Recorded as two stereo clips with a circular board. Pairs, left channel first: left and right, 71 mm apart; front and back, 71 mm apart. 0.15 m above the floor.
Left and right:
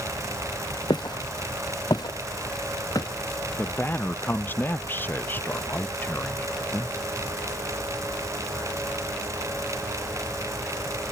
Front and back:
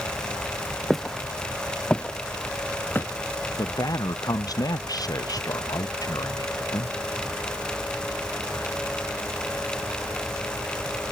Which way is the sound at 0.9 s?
85° left.